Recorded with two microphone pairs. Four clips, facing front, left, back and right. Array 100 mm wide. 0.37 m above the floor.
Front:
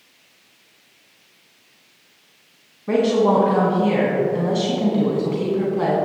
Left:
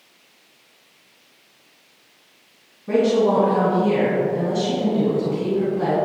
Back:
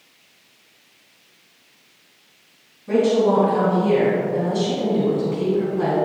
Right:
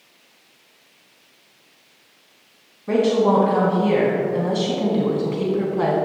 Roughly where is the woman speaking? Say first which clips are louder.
Even, even; ahead right.